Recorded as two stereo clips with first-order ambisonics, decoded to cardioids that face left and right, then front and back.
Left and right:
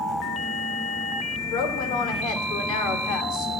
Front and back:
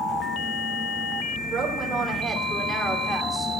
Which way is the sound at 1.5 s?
120° left.